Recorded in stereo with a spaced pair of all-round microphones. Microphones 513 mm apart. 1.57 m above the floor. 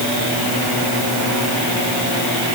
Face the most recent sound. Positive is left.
No sound to turn to.